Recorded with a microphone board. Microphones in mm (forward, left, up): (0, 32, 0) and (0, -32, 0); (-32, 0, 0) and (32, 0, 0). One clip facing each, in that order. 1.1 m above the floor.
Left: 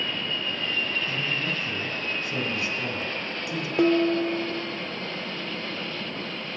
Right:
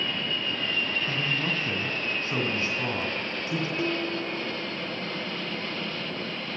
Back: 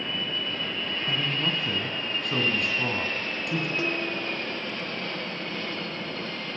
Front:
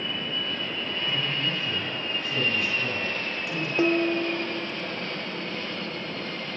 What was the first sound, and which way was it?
A man speaking, 150° right.